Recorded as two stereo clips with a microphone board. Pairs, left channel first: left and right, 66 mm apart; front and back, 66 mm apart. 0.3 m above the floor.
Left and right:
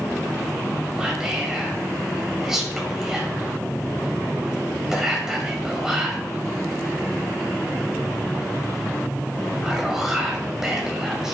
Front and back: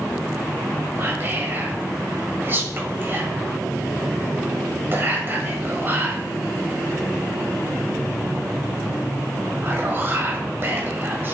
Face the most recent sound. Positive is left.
turn(degrees=-165)